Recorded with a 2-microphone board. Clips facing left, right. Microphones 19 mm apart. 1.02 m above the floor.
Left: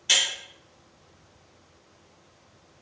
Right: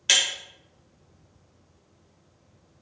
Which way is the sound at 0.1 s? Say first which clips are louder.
Right 1 dB; 35° right (ahead or behind).